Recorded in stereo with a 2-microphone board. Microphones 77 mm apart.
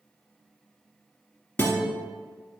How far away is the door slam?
I don't hear a door slam.